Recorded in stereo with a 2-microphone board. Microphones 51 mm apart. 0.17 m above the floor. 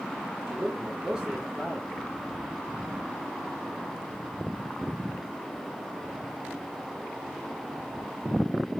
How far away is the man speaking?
About 3 m.